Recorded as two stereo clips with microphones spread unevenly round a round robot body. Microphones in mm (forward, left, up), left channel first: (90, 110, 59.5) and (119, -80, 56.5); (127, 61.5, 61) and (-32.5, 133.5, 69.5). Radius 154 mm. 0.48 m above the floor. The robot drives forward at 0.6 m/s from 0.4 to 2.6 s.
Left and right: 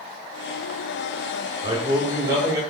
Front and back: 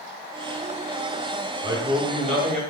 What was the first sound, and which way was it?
A man speaking, 140° right.